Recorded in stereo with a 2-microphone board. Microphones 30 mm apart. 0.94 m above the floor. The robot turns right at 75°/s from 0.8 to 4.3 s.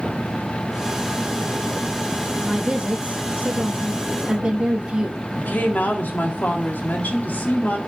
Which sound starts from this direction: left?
A woman speaking, at 5.4 s.